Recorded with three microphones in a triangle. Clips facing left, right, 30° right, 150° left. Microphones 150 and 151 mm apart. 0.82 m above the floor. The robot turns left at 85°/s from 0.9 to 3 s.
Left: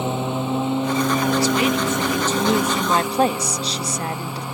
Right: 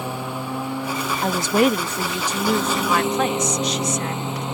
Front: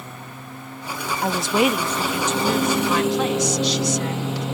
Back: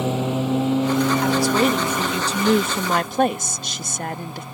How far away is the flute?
No flute in this recording.